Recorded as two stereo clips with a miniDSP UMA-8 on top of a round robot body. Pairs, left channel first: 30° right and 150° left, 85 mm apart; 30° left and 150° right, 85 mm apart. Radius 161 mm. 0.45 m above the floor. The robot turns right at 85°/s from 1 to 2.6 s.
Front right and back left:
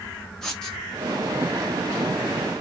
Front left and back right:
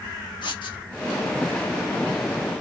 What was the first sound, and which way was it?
Writing, 55° left.